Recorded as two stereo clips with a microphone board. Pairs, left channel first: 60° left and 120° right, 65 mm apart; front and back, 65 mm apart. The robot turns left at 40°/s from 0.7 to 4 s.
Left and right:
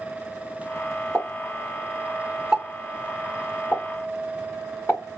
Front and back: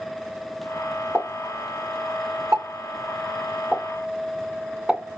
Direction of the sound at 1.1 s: 140° right.